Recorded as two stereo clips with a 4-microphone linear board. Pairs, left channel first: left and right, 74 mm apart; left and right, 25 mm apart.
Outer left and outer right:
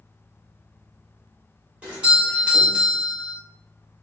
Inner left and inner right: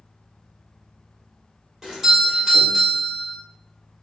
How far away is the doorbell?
About 1.2 m.